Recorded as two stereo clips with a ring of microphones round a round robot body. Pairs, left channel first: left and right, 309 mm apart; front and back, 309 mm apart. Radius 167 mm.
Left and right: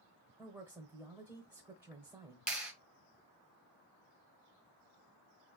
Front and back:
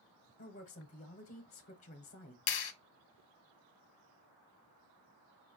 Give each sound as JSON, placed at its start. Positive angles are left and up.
{"t": 0.4, "sound": "a woman speaking", "azimuth_deg": -15, "distance_m": 0.9}
{"t": 2.5, "sound": "a clap", "azimuth_deg": -5, "distance_m": 0.8}